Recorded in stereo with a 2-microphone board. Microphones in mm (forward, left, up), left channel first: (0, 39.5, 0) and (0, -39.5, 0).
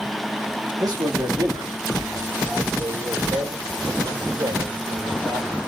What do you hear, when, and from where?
0.8 s a man speaking: 55° right (ahead or behind), 2 m; by 5.6 s 80° right, 6 m